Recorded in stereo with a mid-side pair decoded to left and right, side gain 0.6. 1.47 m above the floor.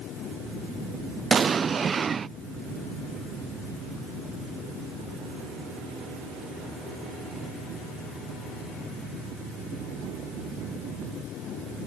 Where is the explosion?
30° right.